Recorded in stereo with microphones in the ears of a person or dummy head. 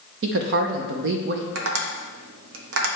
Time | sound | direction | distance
0.2 | a woman speaking | 60° right (ahead or behind) | 0.6 m
1.6 | tapping | 80° right | 0.9 m